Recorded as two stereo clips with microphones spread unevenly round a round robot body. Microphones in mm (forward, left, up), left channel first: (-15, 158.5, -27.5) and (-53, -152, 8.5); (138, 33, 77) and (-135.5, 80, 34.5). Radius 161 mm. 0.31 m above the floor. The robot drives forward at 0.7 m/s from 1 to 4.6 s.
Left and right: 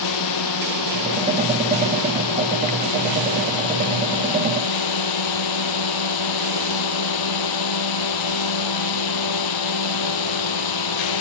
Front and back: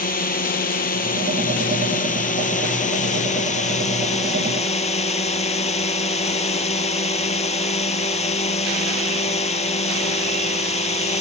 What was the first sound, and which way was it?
A drone, 50° left.